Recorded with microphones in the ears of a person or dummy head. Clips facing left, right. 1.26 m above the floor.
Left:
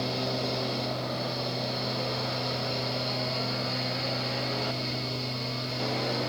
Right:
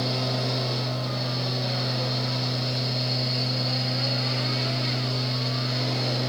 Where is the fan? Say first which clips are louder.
Right 2 dB; 10° right (ahead or behind), 1.4 m.